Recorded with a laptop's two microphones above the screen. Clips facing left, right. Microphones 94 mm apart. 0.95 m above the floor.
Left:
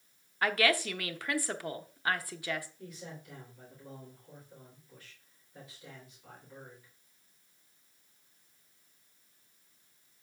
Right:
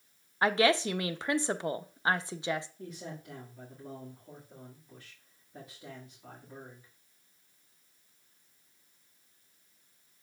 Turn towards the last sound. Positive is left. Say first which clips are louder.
# right 3 dB
turn(degrees=-40)  # may be behind; listen again after turning